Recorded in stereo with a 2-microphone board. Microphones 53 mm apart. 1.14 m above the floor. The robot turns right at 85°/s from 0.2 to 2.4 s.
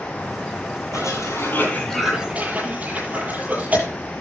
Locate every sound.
0.9 s a cough: 85° left, 9.5 m; by 3.9 s 30° right (ahead or behind), 9.5 m